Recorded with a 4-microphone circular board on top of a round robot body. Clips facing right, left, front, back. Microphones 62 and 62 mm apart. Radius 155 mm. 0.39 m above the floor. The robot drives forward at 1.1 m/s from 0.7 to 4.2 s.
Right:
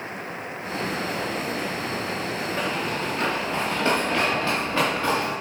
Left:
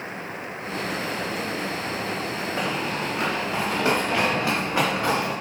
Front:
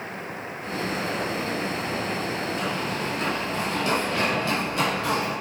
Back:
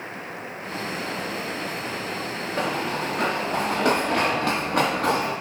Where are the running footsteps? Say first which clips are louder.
Left 1 dB, back 2 dB; 165° left, 2.5 m; by 5.3 s 160° left, 5.5 m.